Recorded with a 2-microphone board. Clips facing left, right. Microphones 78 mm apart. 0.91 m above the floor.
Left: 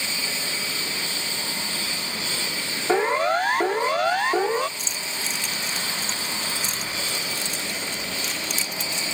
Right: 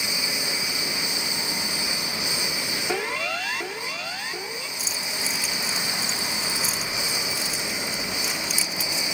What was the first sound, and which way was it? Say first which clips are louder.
A lawn mower: right 1 dB; 15° right (ahead or behind).